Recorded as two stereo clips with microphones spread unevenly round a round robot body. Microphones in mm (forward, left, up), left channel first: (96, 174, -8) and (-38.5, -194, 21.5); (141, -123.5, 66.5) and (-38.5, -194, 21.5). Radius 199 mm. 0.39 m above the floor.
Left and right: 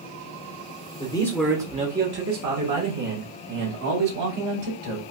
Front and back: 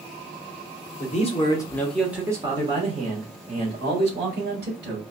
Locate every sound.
1.0 s a man speaking: 30° left, 0.9 m; by 5.0 s 140° right, 2 m